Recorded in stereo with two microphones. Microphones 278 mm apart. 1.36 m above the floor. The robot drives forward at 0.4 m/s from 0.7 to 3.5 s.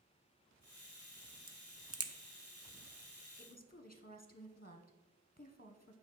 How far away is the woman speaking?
About 0.8 m.